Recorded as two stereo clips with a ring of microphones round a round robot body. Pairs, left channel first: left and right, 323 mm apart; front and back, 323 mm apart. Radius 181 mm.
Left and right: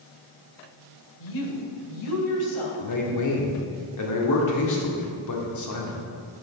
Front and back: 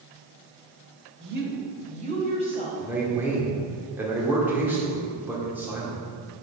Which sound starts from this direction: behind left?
A woman speaking, at 1.2 s.